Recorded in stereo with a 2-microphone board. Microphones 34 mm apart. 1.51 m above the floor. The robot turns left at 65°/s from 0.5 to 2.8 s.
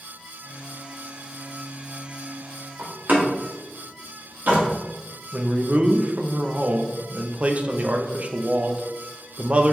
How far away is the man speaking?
About 0.5 m.